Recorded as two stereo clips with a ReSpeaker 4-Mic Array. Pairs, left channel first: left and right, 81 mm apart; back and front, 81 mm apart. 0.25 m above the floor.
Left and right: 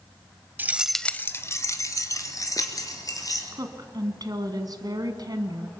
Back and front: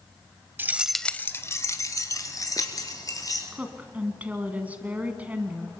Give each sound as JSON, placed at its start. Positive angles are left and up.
{"t": 0.6, "sound": "keys jangling", "azimuth_deg": -45, "distance_m": 0.9}
{"t": 3.5, "sound": "a woman speaking", "azimuth_deg": -70, "distance_m": 1.9}